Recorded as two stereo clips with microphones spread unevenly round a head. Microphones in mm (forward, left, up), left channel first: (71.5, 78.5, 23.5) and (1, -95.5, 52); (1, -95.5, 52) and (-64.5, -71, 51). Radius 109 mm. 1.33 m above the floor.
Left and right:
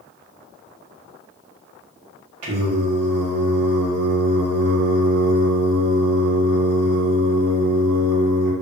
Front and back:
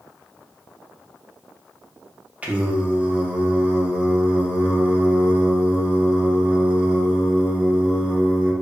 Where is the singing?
130° right, 0.7 m.